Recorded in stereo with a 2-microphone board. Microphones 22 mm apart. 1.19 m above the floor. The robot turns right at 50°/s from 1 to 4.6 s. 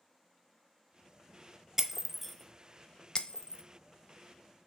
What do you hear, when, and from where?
1.8 s breaking glass: 15° right (ahead or behind), 0.6 m; by 3.6 s 45° left (ahead or behind), 0.6 m